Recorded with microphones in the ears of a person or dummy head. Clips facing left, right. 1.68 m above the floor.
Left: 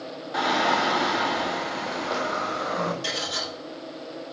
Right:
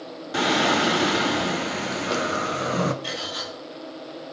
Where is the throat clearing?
No throat clearing in this recording.